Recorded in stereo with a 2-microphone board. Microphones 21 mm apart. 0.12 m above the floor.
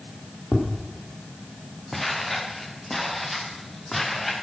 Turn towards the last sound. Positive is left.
turn(degrees=5)  # may be behind; listen again after turning